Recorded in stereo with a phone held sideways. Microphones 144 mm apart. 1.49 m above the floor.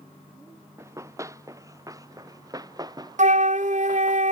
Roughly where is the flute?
Right.